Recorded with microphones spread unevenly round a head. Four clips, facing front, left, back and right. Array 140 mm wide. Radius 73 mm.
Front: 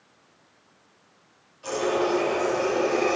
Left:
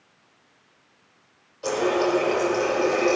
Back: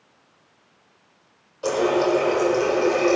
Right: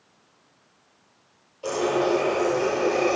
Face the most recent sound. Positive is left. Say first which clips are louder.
# left 1 dB, back 5 dB
turn(degrees=175)